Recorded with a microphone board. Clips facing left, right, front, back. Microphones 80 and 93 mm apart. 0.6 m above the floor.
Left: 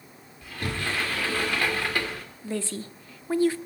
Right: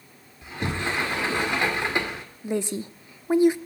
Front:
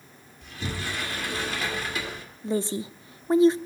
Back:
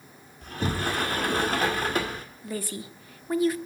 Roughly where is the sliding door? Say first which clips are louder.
Right 3 dB, back 5 dB; behind right.